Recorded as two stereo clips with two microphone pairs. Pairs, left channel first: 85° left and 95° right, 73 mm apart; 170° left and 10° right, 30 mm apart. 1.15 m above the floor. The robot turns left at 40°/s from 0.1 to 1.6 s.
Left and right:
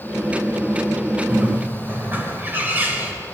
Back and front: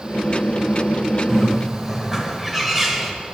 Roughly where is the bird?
Right.